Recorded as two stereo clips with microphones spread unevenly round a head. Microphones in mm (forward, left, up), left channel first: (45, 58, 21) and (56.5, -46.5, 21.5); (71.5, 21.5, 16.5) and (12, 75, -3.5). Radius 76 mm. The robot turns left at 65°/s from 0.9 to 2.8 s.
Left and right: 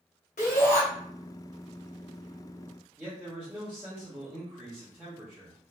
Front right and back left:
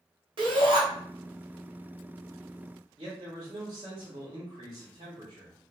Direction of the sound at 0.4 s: 120° left.